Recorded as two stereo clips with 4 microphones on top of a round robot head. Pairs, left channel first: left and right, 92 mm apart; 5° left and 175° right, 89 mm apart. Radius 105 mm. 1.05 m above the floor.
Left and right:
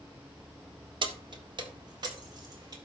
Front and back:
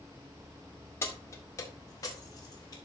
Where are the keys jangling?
60° right, 1.2 m; by 2.8 s 45° right, 2 m.